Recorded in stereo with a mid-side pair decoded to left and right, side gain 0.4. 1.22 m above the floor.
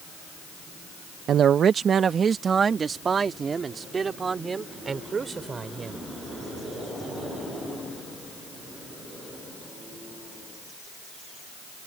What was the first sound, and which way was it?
A man speaking, 70° right.